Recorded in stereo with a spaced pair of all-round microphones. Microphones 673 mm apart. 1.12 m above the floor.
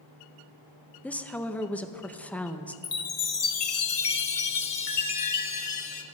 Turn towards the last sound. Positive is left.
turn(degrees=55)  # may be behind; listen again after turning